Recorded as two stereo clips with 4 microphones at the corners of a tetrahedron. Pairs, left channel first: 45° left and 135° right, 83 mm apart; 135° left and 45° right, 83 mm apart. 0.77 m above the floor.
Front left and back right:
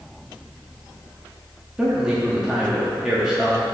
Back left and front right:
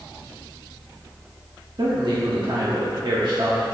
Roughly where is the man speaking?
Ahead right.